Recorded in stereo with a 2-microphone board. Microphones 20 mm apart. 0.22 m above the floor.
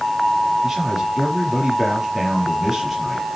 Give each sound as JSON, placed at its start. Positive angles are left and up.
{"t": 0.6, "sound": "a man speaking", "side_deg": -20, "distance_m": 5.5}